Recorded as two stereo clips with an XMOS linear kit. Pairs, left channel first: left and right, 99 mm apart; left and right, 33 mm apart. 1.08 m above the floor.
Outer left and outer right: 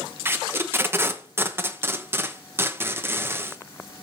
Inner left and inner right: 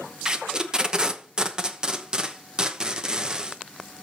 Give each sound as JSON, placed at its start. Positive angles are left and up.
{"t": 0.2, "sound": "tape being pulled", "side_deg": -25, "distance_m": 1.0}